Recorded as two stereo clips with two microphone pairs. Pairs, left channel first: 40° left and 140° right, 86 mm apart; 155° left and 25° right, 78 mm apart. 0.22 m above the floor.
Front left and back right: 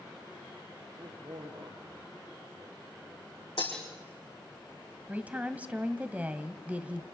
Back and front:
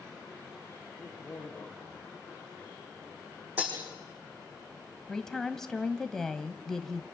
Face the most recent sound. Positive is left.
turn(degrees=-135)